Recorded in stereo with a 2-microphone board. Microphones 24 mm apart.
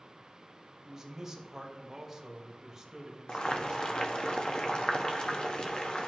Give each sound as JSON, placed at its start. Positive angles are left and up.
{"t": 0.8, "sound": "a man speaking", "side_deg": -15, "distance_m": 2.5}
{"t": 3.3, "sound": "boiling", "side_deg": 45, "distance_m": 1.2}